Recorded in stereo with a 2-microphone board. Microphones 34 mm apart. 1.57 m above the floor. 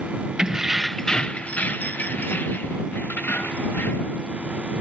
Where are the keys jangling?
25° right (ahead or behind); by 4.2 s 75° left (ahead or behind).